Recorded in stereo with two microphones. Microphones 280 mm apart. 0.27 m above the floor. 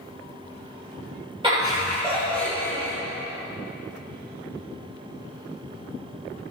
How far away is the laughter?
About 1.4 m.